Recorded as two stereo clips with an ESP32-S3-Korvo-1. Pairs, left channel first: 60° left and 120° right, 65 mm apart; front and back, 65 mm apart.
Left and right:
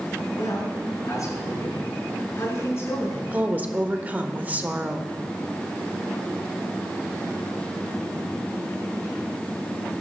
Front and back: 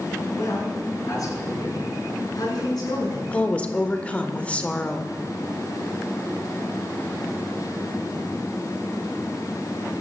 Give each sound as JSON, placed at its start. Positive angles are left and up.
{"t": 0.3, "sound": "a man speaking", "azimuth_deg": 30, "distance_m": 7.0}
{"t": 3.3, "sound": "a woman speaking", "azimuth_deg": -65, "distance_m": 1.4}